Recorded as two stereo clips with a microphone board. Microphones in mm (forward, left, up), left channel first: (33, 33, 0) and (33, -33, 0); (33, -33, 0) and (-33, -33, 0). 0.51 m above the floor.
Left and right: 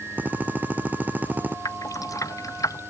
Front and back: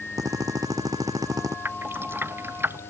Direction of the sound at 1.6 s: 125° left.